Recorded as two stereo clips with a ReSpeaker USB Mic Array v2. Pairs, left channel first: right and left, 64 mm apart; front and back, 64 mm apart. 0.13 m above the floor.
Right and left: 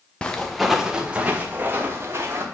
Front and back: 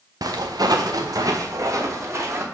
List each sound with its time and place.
0.2 s footsteps: 165° right, 0.9 m; by 2.4 s 140° left, 1.8 m